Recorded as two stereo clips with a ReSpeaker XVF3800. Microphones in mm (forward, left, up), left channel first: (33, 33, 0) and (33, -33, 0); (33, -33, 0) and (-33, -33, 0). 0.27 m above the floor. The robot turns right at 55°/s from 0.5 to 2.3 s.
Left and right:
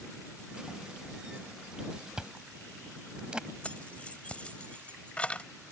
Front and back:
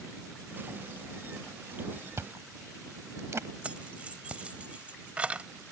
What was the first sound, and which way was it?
Chewing, 165° right.